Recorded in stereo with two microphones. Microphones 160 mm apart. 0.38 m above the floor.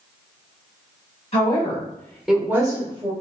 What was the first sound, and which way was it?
A woman speaking, 40° left (ahead or behind).